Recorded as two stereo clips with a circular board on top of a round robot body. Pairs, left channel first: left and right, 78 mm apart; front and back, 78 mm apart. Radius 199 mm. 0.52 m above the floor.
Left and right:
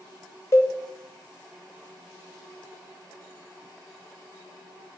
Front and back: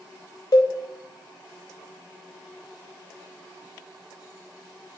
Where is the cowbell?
35° left, 0.5 m.